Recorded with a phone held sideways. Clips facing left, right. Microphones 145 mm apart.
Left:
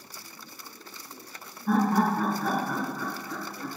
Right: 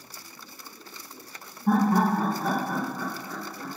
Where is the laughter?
50° right (ahead or behind), 1.3 m; by 3.7 s 10° right (ahead or behind), 1.2 m.